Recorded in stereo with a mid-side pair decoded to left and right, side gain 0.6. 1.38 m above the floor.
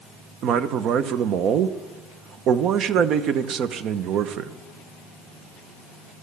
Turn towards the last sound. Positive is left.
turn(degrees=-55)